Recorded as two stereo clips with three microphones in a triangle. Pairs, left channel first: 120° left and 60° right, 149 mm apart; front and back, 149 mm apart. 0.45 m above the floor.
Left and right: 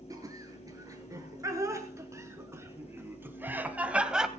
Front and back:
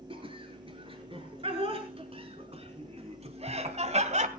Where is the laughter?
125° right, 7 m; by 4.3 s 145° right, 2 m.